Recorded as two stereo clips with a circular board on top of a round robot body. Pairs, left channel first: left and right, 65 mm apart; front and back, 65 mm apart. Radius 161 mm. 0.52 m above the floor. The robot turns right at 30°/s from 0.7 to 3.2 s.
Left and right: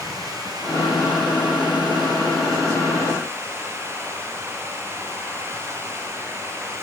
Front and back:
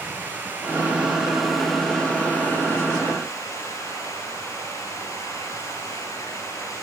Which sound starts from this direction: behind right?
Running water, at 0.0 s.